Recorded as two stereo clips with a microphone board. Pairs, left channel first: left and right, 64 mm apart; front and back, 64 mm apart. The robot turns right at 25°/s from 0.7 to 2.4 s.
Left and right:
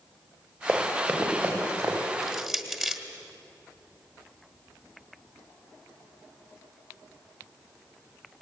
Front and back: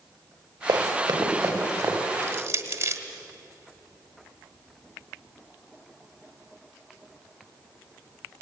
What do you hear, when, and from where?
0.7 s running footsteps: 155° right, 5 m; by 1.9 s 130° right, 5.5 m
2.2 s crushing: 175° right, 1.3 m; by 3.0 s 170° right, 1.3 m